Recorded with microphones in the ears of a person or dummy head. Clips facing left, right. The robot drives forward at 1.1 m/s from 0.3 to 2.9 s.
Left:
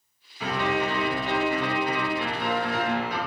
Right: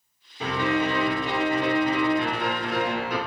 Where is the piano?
30° right (ahead or behind), 5 m; by 3.2 s 60° right (ahead or behind), 3 m.